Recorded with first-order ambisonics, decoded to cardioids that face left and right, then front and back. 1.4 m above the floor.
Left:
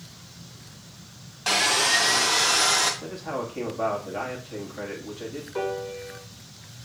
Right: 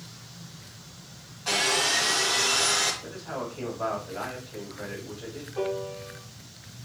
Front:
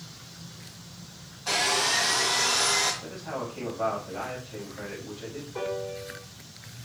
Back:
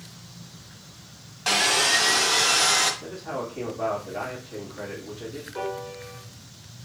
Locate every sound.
1.5 s sawing: 145° left, 1.5 m
3.0 s a man speaking: 100° left, 2.5 m
5.5 s a piano: 90° left, 2 m